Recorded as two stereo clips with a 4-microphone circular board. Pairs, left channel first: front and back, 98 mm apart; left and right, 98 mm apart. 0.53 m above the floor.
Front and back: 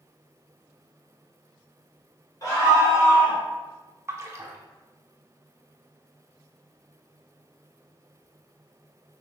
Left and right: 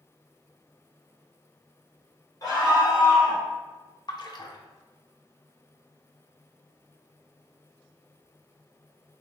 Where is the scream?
45° left, 1.9 m; by 3.4 s 65° left, 2 m.